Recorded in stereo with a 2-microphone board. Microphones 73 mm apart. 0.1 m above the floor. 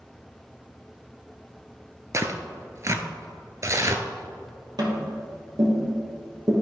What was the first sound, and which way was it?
Tearing paper, 40° right (ahead or behind).